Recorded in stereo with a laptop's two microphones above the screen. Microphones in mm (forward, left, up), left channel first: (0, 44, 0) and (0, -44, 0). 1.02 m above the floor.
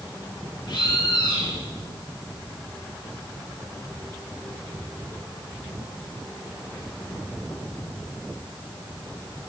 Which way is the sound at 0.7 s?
60° left (ahead or behind).